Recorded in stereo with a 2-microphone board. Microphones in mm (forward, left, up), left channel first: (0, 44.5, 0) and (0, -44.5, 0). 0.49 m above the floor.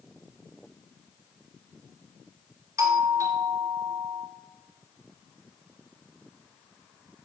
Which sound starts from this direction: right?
A doorbell, at 2.8 s.